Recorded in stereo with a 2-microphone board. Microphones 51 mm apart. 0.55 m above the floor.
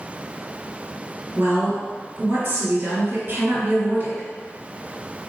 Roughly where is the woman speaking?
Right.